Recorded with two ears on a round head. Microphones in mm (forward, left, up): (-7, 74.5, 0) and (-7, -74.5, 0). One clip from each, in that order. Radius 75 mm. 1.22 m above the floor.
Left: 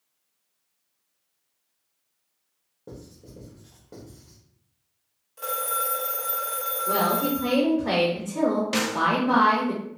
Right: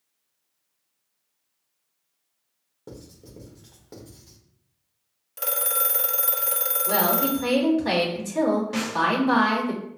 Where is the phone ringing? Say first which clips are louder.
Left 1 dB; 55° right (ahead or behind), 0.6 m.